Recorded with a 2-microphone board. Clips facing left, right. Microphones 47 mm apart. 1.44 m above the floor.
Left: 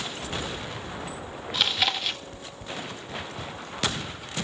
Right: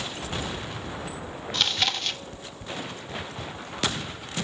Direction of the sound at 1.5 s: 5° left (ahead or behind).